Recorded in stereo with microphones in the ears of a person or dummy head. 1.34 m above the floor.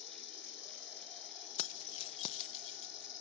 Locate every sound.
0.0 s an insect: 65° left (ahead or behind), 2.5 m
1.6 s keys jangling: 35° left (ahead or behind), 0.6 m